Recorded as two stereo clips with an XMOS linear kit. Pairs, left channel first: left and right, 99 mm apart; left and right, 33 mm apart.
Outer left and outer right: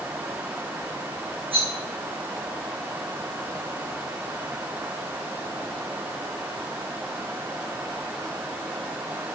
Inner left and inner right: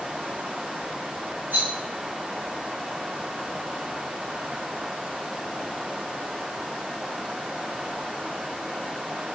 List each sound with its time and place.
1.5 s a rattle: 65° right (ahead or behind), 2.5 m